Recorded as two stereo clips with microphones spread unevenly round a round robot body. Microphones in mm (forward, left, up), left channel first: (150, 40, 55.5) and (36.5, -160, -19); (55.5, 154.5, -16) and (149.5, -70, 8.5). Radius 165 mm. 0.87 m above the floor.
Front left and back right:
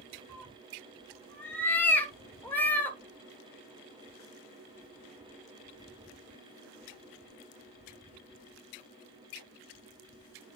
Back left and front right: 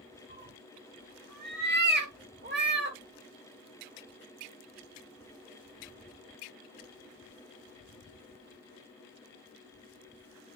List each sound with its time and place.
0.3 s a cat meowing: 20° right, 1.6 m